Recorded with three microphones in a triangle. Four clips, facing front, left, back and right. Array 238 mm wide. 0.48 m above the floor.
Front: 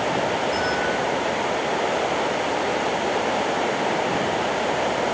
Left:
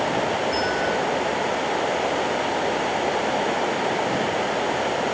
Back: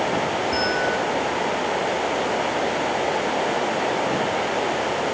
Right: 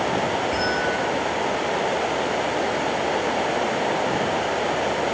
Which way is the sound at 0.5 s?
145° right.